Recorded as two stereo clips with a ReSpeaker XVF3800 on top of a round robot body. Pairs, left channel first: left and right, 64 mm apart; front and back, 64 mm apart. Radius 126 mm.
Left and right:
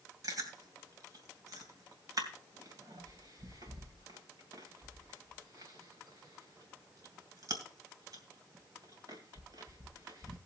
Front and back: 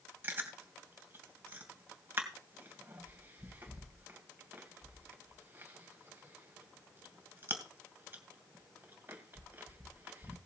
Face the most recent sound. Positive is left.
turn(degrees=-120)